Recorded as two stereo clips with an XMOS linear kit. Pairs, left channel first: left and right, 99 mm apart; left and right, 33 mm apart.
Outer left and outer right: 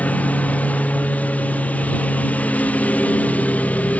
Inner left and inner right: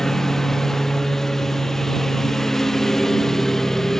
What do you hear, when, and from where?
0.0 s a lawn mower: 15° left (ahead or behind)